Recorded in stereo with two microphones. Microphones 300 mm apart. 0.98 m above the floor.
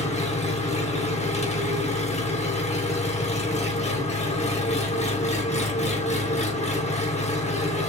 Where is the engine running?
20° left (ahead or behind), 0.7 m.